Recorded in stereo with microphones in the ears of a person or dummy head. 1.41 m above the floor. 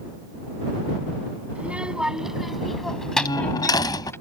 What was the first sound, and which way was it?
A child speaking, 5° right (ahead or behind).